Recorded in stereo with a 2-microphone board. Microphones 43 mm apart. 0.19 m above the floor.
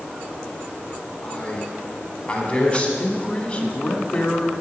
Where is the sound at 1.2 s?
25° left (ahead or behind), 1.7 m.